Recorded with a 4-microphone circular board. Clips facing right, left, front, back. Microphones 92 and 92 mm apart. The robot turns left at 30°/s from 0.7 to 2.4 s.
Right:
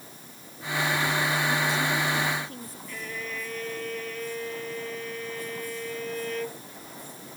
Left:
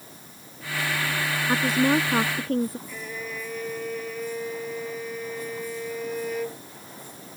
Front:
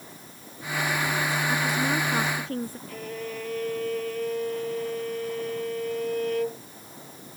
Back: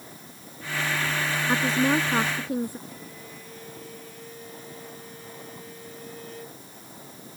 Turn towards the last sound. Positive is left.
turn(degrees=10)